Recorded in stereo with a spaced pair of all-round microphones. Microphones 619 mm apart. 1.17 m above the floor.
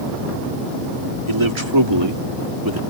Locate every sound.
1.3 s a man speaking: 50° right (ahead or behind); by 2.8 s 35° right (ahead or behind)